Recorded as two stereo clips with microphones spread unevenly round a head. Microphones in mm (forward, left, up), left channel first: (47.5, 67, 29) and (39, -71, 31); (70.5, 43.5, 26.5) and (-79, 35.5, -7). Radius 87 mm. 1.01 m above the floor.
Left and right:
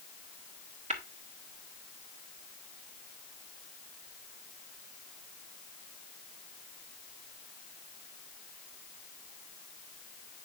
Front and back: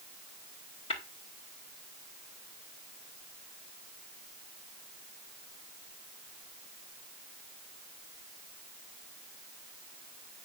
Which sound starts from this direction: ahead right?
Tapping, at 0.9 s.